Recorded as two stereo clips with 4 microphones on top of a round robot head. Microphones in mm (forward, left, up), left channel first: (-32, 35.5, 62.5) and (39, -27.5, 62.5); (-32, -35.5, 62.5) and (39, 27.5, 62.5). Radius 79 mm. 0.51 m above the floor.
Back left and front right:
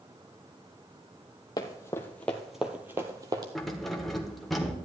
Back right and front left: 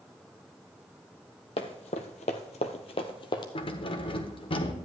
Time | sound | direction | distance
1.6 | running footsteps | 165° right | 1.1 m
3.5 | keys jangling | 135° right | 1.2 m